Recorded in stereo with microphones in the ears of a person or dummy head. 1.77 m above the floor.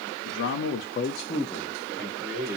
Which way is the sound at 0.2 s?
80° left.